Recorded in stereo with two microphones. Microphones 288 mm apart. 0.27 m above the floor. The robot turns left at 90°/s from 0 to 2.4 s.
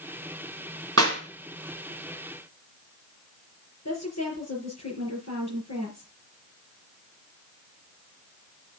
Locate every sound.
1.0 s a clap: 50° right (ahead or behind), 2.5 m; by 1.2 s 35° right (ahead or behind), 2.5 m
3.9 s a woman speaking: 60° left (ahead or behind), 4.5 m